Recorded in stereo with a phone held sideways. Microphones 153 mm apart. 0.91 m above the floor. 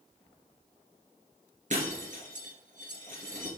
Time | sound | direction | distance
1.7 | breaking glass | 55° right (ahead or behind) | 3 m